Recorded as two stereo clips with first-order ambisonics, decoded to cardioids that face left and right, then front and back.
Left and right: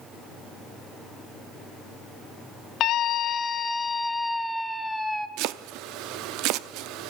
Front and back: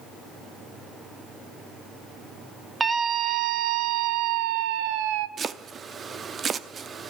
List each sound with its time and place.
2.8 s a scream: 110° left, 0.6 m; by 5.3 s 175° right, 1.4 m
5.4 s chopping: 115° right, 0.7 m